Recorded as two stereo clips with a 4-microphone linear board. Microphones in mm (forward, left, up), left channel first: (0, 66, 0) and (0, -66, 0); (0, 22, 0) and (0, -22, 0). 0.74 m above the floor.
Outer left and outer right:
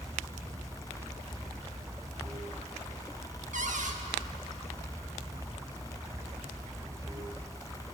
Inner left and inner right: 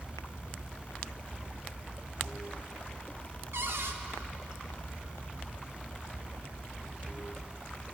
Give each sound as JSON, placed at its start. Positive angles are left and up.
{"t": 0.0, "sound": "running water", "side_deg": -25, "distance_m": 1.3}
{"t": 3.5, "sound": "a cupboard door", "side_deg": -70, "distance_m": 0.8}